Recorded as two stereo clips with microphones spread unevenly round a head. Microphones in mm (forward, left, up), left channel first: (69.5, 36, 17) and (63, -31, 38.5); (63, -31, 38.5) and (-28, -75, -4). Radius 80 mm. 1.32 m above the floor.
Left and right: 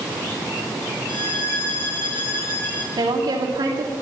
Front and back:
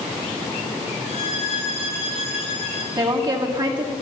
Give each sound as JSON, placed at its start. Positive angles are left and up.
{"t": 1.1, "sound": "a violin", "azimuth_deg": 30, "distance_m": 4.0}
{"t": 3.0, "sound": "a woman speaking", "azimuth_deg": -110, "distance_m": 2.5}